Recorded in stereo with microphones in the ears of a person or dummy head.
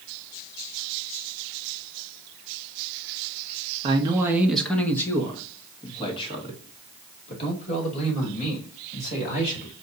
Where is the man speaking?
25° right (ahead or behind), 0.7 m; by 9.7 s 45° left (ahead or behind), 3.5 m.